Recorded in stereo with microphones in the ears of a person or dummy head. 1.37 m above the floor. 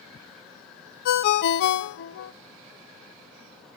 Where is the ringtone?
55° left (ahead or behind), 0.6 m.